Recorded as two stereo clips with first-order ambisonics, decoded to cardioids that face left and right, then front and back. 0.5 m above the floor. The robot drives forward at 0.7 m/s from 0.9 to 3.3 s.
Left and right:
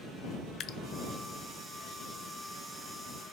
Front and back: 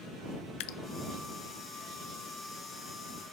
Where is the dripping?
30° left, 0.6 m.